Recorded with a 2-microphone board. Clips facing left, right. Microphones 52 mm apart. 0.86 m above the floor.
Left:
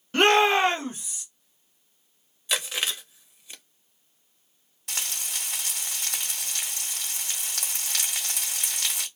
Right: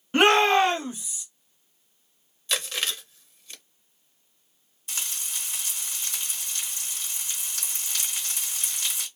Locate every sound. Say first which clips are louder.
0.1 s a shout: right 1 dB; 15° right (ahead or behind), 0.9 m; by 1.2 s 55° left (ahead or behind), 1.4 m
2.5 s chewing: left 1 dB; 10° left (ahead or behind), 0.6 m
4.9 s frying: left 2 dB; 75° left (ahead or behind), 1.6 m